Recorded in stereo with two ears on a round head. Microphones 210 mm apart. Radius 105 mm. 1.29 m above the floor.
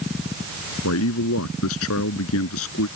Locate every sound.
0.8 s a man speaking: 65° left (ahead or behind)